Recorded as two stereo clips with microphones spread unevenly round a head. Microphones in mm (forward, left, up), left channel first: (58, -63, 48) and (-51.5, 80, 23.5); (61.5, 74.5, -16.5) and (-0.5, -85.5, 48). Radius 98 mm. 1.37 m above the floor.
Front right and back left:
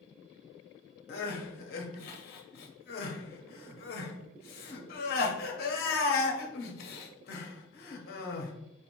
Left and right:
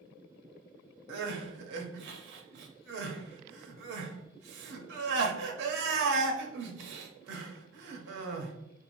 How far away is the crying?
About 0.7 m.